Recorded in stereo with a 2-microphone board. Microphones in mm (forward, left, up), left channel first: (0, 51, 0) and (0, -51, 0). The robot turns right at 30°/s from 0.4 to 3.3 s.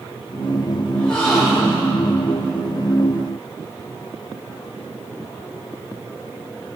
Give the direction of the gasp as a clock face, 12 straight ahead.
6 o'clock.